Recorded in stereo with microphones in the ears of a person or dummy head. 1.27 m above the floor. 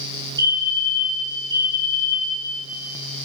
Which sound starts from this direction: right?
A fire alarm, at 0.4 s.